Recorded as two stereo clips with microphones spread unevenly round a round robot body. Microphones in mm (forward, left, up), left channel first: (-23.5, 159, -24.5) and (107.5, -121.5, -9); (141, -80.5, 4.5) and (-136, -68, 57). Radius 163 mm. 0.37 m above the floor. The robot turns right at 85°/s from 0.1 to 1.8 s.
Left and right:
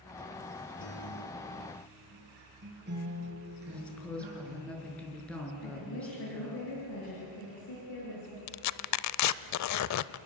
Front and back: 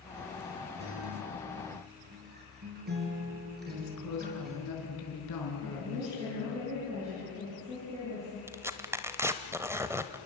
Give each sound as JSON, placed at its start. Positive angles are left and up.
{"t": 0.8, "sound": "a guitar", "azimuth_deg": 150, "distance_m": 5.0}
{"t": 3.7, "sound": "a woman speaking", "azimuth_deg": 30, "distance_m": 5.0}
{"t": 5.6, "sound": "a woman speaking", "azimuth_deg": 105, "distance_m": 7.5}
{"t": 8.5, "sound": "tearing paper", "azimuth_deg": 90, "distance_m": 0.6}